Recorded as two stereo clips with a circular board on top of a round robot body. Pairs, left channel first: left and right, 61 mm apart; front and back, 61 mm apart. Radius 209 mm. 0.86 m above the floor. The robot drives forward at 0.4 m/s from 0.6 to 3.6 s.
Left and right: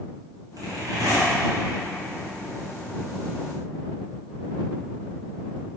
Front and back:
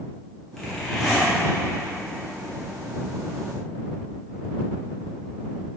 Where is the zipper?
85° right, 3 m; by 1.3 s 95° right, 3 m.